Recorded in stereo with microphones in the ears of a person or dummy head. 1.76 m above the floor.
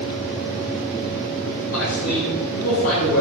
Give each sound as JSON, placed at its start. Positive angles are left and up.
{"t": 1.7, "sound": "a man speaking", "side_deg": 75, "distance_m": 8.5}